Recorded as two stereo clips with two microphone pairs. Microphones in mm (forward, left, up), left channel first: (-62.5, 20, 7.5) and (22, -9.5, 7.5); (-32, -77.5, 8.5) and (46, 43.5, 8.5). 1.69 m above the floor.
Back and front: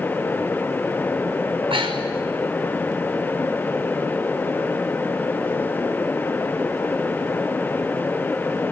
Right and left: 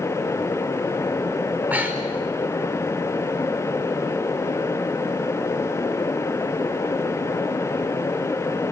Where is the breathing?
20° right, 5 m.